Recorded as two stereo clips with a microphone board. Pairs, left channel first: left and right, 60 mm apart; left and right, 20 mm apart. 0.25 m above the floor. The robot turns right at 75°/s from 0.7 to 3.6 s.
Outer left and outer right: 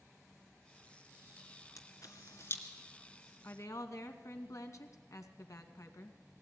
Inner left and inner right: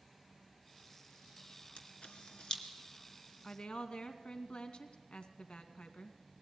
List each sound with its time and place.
1.8 s a camera shutter: 70° left (ahead or behind), 2 m; by 2.6 s 35° left (ahead or behind), 2 m
3.4 s a woman speaking: 55° left (ahead or behind), 2 m; by 6.2 s 60° left (ahead or behind), 2 m